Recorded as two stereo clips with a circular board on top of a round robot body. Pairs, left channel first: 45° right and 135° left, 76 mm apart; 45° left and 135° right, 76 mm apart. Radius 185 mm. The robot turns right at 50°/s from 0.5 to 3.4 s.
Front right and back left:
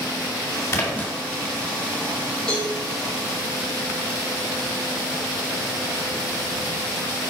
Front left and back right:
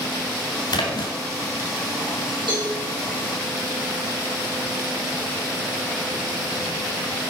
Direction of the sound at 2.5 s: 125° right.